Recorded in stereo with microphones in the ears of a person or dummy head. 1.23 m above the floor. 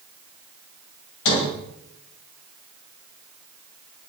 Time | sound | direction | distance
1.2 | a sliding door | 70° left (ahead or behind) | 5.5 m